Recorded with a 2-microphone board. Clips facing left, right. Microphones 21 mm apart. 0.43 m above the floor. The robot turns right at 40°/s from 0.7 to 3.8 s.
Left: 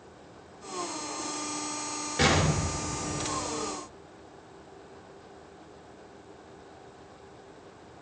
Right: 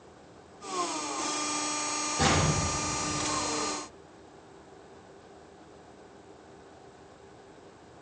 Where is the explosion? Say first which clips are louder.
Left 2 dB; 75° left, 3.5 m; by 3.7 s 135° left, 3.5 m.